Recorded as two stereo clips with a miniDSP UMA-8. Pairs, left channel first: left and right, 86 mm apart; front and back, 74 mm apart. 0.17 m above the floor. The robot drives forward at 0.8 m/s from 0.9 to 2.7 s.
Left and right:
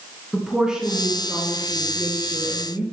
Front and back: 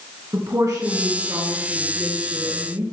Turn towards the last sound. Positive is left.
turn(degrees=-175)